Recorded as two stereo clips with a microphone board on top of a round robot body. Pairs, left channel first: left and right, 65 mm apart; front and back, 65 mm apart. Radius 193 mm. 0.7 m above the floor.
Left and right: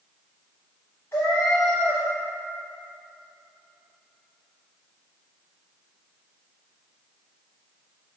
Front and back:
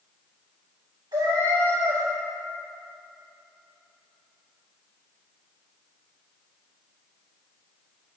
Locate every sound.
1.1 s a cat meowing: 160° left, 0.6 m